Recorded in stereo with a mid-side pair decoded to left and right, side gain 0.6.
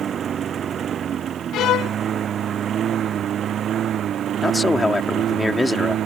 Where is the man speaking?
15° left.